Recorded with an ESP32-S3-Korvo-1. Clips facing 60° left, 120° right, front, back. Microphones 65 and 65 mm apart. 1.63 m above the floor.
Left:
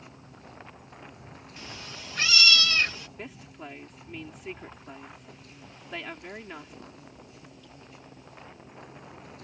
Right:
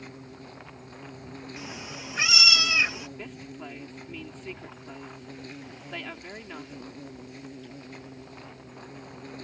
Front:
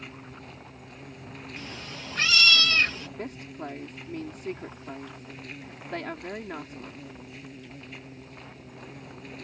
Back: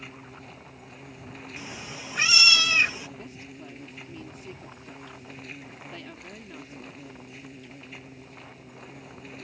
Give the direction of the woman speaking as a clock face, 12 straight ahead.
1 o'clock.